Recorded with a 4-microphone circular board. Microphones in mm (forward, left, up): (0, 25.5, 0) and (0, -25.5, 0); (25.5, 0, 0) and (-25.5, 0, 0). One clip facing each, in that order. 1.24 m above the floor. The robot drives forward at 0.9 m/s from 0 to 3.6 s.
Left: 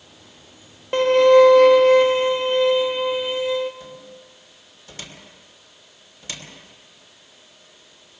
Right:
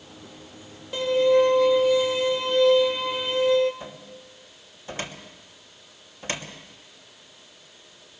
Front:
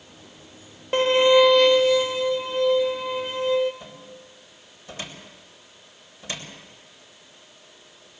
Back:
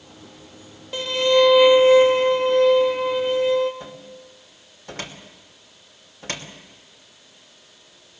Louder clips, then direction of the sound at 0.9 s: Left 7 dB, front 2 dB; 45° left.